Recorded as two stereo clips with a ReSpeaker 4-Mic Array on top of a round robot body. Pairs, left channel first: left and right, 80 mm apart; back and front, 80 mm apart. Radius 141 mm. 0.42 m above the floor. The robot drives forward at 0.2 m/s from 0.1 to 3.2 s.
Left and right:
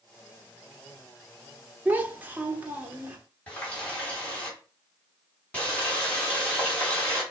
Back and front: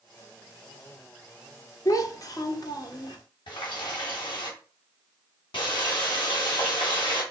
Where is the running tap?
165° left, 2.5 m.